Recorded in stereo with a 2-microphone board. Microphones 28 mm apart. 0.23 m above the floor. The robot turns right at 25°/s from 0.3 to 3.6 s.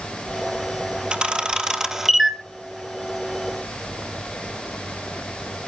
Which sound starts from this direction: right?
A camera shutter, at 1.1 s.